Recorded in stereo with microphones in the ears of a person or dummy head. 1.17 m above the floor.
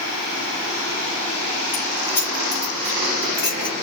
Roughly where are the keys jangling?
Left.